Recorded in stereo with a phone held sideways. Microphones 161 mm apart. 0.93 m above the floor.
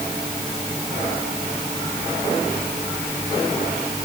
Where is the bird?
No bird in this recording.